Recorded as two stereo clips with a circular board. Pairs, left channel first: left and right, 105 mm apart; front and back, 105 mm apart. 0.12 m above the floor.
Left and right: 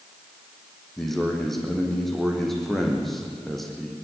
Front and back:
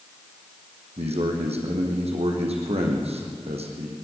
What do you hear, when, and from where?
1.0 s a man speaking: straight behind, 4 m